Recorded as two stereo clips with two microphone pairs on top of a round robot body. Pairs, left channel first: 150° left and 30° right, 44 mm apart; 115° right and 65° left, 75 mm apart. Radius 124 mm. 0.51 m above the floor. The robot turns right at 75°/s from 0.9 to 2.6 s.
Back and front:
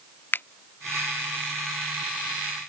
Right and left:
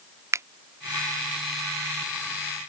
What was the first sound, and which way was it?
A finger snap, 115° left.